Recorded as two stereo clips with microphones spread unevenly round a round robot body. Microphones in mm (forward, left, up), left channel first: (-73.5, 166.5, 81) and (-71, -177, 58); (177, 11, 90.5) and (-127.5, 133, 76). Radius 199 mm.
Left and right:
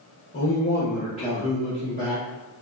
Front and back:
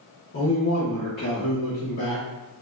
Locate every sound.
0.3 s a man speaking: 25° left, 0.9 m; by 2.2 s 30° right, 1.4 m